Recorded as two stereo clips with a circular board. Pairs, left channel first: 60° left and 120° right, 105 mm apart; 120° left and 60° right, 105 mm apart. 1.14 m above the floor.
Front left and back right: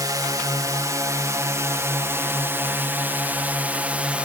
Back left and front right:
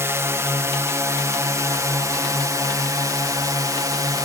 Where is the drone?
105° right; by 4.3 s 50° right.